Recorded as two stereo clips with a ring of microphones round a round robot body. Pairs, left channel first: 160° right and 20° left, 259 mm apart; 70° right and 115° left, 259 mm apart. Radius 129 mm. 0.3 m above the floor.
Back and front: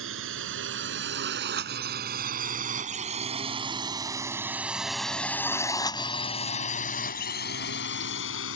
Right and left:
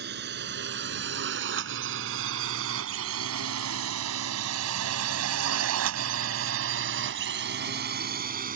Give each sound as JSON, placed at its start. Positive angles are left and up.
{"t": 0.0, "sound": "a drone", "azimuth_deg": 65}